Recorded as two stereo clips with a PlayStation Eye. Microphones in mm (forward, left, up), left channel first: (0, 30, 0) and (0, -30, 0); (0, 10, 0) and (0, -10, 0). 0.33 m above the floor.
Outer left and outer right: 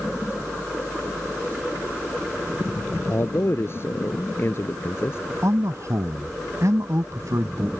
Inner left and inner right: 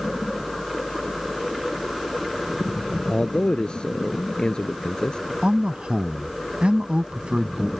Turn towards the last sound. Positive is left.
turn(degrees=-60)  # may be behind; listen again after turning